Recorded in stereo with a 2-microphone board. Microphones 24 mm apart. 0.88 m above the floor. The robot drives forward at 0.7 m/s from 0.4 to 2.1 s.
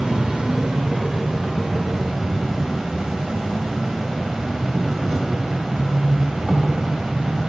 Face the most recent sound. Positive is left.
turn(degrees=-20)  # may be behind; listen again after turning